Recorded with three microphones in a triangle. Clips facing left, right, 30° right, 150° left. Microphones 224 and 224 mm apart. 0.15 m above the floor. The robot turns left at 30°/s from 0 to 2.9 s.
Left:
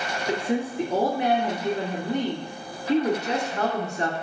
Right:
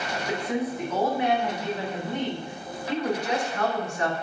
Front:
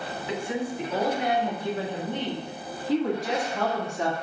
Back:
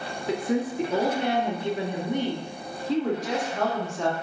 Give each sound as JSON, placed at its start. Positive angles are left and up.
{"t": 0.3, "sound": "a woman speaking", "azimuth_deg": 140, "distance_m": 1.7}